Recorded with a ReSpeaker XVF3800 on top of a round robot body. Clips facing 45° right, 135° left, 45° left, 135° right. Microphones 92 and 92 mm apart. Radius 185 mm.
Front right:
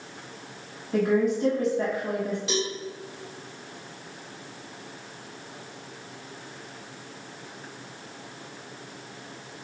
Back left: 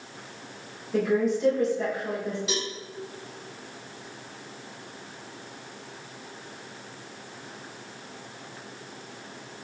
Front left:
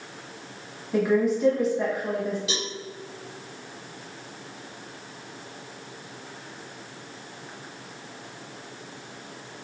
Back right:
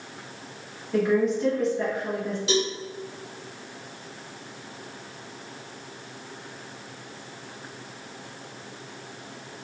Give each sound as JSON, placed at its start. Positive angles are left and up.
{"t": 0.9, "sound": "a woman speaking", "azimuth_deg": -35, "distance_m": 1.7}
{"t": 2.5, "sound": "a cowbell", "azimuth_deg": -135, "distance_m": 1.5}